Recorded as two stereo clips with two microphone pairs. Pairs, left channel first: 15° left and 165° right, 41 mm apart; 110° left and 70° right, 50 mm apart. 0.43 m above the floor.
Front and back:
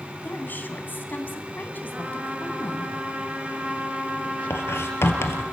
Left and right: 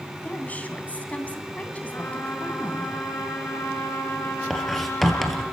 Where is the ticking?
No ticking in this recording.